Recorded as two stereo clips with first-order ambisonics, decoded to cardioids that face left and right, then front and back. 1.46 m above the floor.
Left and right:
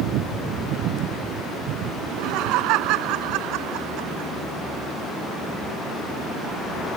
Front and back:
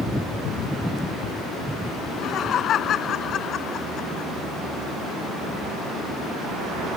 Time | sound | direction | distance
2.0 | laughter | 60° right | ?